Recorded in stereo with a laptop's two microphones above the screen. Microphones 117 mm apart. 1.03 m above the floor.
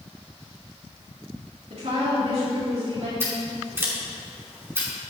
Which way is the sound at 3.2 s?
20° right (ahead or behind).